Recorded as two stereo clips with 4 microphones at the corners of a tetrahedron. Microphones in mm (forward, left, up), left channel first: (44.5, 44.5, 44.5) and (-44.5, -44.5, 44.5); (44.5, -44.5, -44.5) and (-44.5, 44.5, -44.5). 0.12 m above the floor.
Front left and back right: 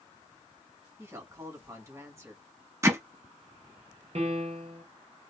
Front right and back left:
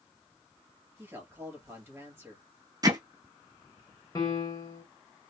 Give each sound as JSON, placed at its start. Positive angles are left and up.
{"t": 1.0, "sound": "a woman speaking", "azimuth_deg": -175, "distance_m": 1.8}
{"t": 2.8, "sound": "hammering", "azimuth_deg": 170, "distance_m": 0.8}
{"t": 4.2, "sound": "a piano", "azimuth_deg": -105, "distance_m": 0.8}